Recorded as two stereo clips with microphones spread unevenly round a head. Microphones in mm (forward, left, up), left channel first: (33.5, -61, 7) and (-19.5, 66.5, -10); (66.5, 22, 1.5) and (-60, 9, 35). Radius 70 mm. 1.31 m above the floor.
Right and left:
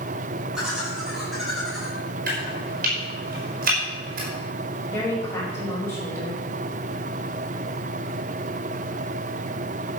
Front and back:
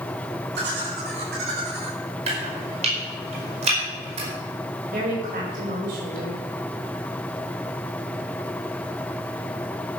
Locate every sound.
0.6 s laughter: 160° right, 7.5 m; by 2.0 s 155° right, 7.5 m
2.3 s chopping: 145° left, 5.5 m
4.9 s a woman speaking: 140° right, 5.5 m